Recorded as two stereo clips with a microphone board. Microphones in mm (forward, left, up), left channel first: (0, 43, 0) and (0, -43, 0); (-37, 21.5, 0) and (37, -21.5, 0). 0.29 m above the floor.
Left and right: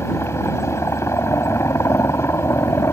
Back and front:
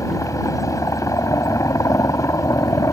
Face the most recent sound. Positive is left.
turn(degrees=130)